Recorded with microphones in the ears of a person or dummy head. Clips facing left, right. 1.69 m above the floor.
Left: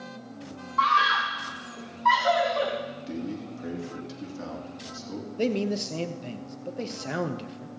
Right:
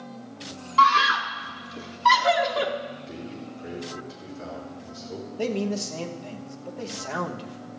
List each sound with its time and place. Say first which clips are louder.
0.8 s a scream: right 4 dB; 40° right (ahead or behind), 0.7 m
3.1 s a man speaking: left 4 dB; 75° left (ahead or behind), 3 m
5.4 s a man speaking: left 1 dB; 25° left (ahead or behind), 0.8 m